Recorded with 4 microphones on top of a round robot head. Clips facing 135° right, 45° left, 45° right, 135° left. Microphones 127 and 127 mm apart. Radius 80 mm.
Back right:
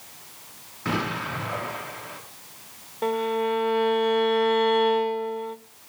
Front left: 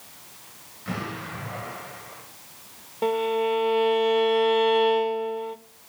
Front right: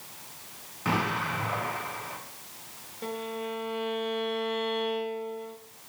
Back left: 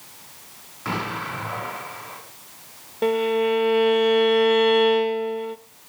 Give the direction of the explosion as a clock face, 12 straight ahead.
4 o'clock.